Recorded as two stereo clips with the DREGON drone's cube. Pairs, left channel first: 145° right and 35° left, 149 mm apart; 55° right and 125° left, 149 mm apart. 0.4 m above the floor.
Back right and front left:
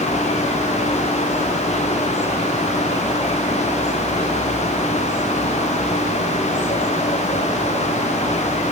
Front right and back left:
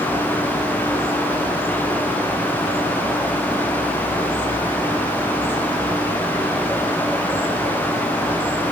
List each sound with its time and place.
Only background noise.